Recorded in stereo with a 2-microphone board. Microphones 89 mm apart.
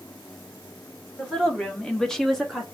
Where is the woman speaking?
5° left (ahead or behind), 1.3 m; by 2.6 s centre (ahead or behind), 0.7 m.